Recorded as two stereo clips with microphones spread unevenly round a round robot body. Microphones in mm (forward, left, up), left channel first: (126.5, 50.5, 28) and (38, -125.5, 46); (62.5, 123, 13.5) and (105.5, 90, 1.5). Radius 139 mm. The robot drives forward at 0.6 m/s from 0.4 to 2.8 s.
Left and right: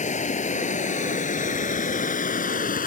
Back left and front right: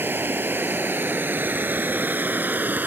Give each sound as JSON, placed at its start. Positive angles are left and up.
{"t": 0.0, "sound": "running water", "azimuth_deg": 15}